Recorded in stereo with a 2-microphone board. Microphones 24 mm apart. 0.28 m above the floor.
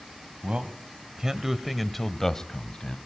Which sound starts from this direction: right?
A man speaking, at 0.4 s.